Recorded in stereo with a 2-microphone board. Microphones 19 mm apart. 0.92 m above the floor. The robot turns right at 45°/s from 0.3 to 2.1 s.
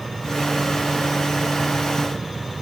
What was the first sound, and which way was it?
Only background noise.